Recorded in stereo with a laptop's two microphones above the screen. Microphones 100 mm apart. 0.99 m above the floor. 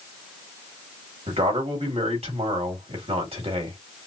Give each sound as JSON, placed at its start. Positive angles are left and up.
{"t": 1.3, "sound": "a man speaking", "side_deg": -85, "distance_m": 2.5}